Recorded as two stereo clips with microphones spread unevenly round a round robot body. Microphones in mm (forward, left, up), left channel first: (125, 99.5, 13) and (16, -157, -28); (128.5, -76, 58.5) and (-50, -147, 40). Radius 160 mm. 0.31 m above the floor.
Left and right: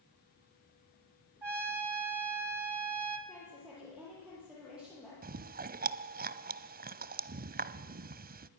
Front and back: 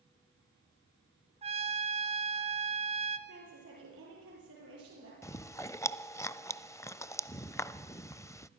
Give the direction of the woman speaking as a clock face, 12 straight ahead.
7 o'clock.